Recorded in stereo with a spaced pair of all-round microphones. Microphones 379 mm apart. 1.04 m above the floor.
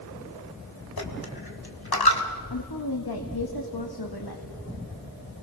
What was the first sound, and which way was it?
A dropped coin, 75° left (ahead or behind).